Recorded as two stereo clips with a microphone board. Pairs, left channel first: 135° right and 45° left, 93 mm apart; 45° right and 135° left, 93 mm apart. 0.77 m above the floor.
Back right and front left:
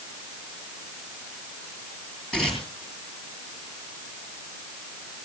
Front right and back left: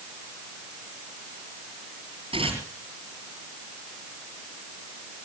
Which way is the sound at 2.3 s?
145° left.